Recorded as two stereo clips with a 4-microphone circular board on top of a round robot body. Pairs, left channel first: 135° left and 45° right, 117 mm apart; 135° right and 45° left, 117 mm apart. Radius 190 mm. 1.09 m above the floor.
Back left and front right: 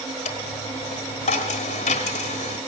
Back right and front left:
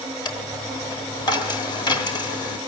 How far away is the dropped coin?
About 0.9 m.